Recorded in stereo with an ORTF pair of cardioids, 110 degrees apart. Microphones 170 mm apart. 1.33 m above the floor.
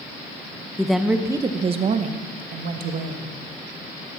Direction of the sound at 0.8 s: 5° left.